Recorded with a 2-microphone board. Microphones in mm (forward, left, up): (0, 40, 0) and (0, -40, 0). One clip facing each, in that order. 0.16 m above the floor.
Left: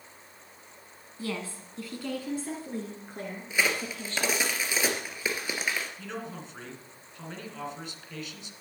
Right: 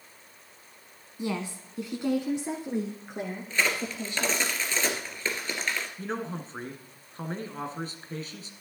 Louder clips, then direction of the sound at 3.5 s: Even; 10° left (ahead or behind).